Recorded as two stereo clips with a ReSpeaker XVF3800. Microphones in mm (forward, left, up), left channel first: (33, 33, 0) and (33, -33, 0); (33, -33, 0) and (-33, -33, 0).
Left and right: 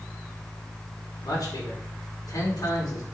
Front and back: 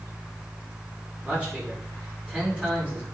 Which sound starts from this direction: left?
A man speaking, at 1.2 s.